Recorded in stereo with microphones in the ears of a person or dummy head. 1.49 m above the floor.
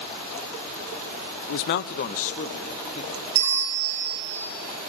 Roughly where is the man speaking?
Left.